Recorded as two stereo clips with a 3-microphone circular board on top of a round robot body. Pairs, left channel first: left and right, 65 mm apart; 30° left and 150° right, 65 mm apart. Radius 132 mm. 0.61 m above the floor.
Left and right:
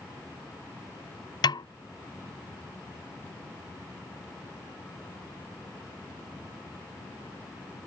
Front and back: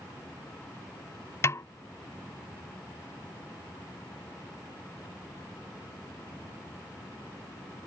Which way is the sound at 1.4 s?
80° left.